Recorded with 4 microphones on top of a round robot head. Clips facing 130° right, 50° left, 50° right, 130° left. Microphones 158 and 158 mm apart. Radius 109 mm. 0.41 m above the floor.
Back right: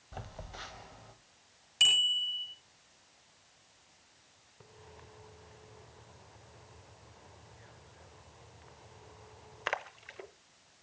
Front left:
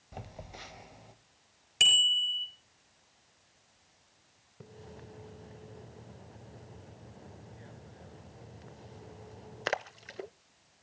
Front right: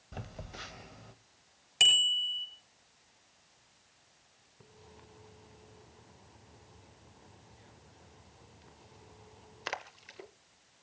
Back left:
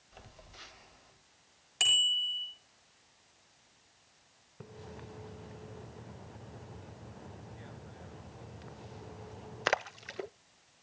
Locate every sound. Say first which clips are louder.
0.1 s a phone buzzing: even, front right 9 dB; 25° right, 1.5 m
1.8 s a bicycle bell: front left 3 dB, front right 2 dB; 20° left, 7 m
4.6 s a splash: front left 6 dB, back left 9 dB; 100° left, 0.5 m